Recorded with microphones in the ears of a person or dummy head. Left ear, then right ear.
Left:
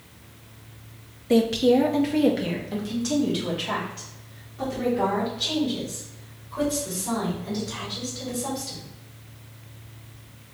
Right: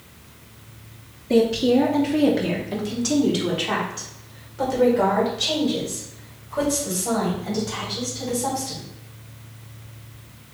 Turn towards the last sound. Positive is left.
turn(degrees=-25)  # may be behind; listen again after turning